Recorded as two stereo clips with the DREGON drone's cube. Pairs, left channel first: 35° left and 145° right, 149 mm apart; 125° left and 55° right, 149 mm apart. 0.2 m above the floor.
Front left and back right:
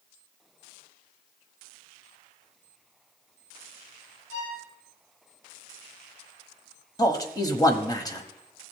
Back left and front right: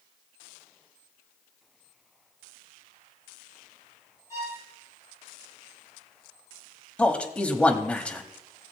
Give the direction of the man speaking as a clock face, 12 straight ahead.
10 o'clock.